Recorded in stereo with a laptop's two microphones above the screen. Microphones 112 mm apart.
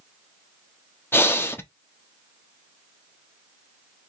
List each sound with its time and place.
1.1 s breathing: 20° left (ahead or behind), 0.7 m